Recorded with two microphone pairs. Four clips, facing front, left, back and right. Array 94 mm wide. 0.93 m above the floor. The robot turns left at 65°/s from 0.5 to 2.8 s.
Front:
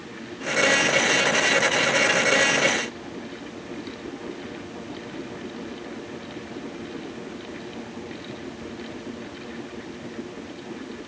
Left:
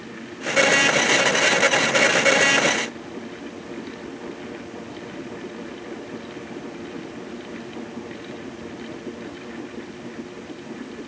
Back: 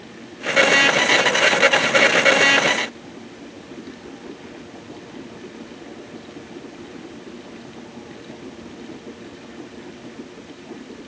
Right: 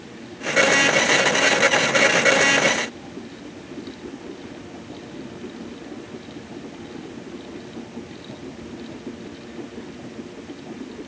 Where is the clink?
I don't hear a clink.